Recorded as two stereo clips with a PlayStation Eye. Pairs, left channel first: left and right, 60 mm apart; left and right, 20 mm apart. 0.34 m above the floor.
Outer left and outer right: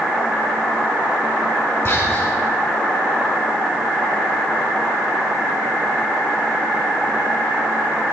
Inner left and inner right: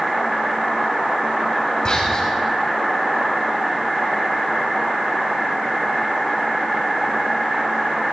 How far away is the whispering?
About 2 m.